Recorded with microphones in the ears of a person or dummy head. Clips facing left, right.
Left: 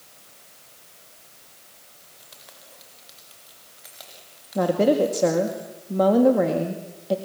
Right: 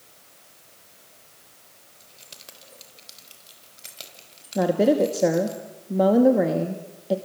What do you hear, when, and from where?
2.0 s keys jangling: 40° right (ahead or behind), 3 m
4.5 s a woman speaking: 10° right (ahead or behind), 2 m